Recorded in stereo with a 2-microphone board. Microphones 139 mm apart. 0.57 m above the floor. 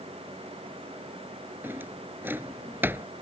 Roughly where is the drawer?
Centre.